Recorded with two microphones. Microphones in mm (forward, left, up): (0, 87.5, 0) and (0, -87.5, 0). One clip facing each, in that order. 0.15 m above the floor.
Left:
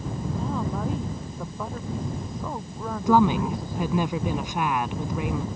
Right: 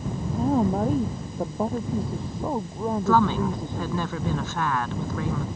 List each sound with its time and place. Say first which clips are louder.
0.4 s a woman speaking: right 9 dB; 45° right (ahead or behind); by 4.1 s 20° right (ahead or behind)
3.1 s a woman speaking: left 3 dB; 15° left (ahead or behind)